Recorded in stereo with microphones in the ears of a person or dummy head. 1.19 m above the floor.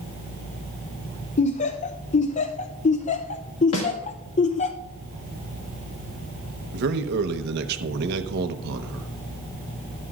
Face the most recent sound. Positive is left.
turn(degrees=-60)  # may be behind; listen again after turning